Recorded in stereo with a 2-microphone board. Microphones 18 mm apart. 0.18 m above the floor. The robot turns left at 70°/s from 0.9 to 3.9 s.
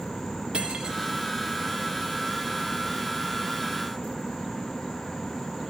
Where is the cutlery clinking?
55° right (ahead or behind), 1.4 m.